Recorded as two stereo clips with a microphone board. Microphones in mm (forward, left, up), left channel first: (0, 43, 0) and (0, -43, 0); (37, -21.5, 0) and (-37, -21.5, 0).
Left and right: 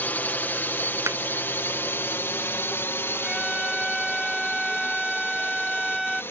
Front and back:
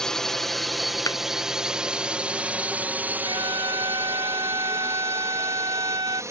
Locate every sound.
0.0 s a drone: 70° left; by 6.3 s 145° left
1.1 s a thud: 35° right
3.2 s a violin: straight behind